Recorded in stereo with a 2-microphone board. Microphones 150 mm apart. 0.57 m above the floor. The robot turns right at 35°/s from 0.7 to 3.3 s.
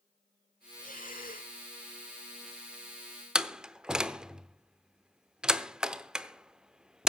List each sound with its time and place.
0.8 s breathing: 60° left (ahead or behind), 1.2 m; by 1.6 s 70° left (ahead or behind), 1.2 m
3.4 s a door slam: 5° right (ahead or behind), 0.7 m